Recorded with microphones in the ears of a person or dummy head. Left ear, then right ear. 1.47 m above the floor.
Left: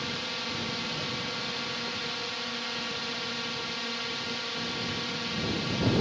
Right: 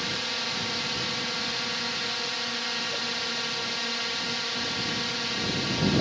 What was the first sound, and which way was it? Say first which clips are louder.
A drone: right 4 dB; 15° right (ahead or behind).